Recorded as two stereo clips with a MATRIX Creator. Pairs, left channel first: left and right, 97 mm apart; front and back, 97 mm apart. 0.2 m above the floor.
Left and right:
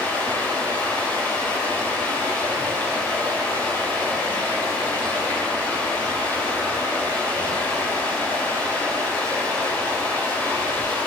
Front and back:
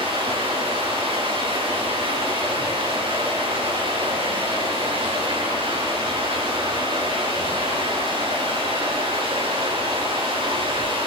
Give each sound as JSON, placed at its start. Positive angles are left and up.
{"t": 0.0, "sound": "running water", "azimuth_deg": 160, "distance_m": 7.0}